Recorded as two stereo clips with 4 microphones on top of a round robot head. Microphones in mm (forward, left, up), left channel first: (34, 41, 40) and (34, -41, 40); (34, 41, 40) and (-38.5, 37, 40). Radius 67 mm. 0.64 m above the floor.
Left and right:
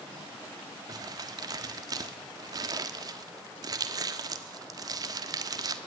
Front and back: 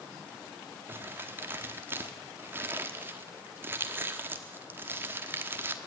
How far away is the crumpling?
About 1.1 m.